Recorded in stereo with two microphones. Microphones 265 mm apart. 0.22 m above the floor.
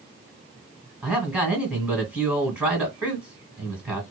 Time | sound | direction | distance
1.0 | a man speaking | 5° right (ahead or behind) | 1.7 m